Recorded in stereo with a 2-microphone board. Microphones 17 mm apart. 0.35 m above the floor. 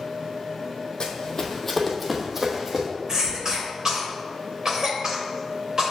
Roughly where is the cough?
Right.